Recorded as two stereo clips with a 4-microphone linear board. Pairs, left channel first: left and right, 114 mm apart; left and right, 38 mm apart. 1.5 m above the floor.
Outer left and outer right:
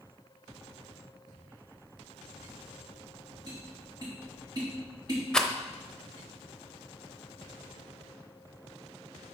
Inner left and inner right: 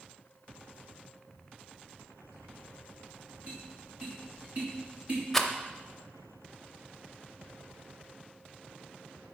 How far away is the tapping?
About 2.5 m.